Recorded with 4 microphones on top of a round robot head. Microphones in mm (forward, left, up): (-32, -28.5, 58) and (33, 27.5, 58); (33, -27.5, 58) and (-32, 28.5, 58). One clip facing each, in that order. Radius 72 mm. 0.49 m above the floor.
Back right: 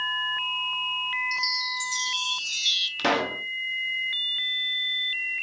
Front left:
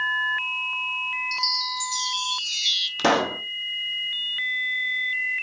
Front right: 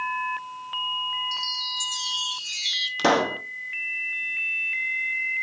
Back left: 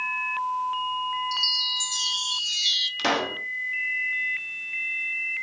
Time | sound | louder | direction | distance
1.3 | a chime | front left 2 dB, back left 2 dB | 160° right | 1.1 m
3.0 | a pop | front left 4 dB, front right 5 dB | 5° right | 1.0 m